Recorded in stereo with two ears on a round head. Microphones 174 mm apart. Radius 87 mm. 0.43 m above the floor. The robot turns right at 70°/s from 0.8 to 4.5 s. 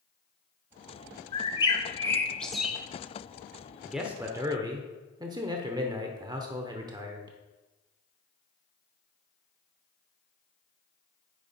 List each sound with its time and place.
1.3 s a bird: 25° left (ahead or behind), 0.7 m; by 2.8 s 5° right (ahead or behind), 0.7 m
3.9 s a man speaking: straight behind, 0.8 m; by 7.4 s 135° right, 0.8 m